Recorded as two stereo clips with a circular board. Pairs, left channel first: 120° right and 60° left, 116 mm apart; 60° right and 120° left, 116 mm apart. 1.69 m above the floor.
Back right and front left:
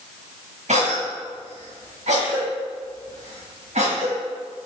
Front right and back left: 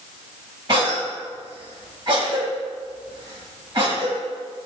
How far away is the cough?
About 1.1 m.